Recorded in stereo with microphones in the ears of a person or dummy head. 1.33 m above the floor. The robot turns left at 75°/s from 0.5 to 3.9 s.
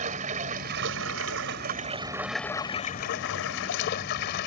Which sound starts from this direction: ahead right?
Running water, at 0.0 s.